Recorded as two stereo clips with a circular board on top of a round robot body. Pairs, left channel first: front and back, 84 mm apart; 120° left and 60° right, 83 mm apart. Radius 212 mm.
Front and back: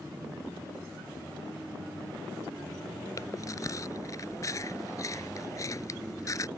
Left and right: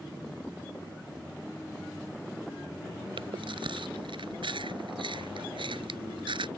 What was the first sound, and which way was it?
Chewing, 50° right.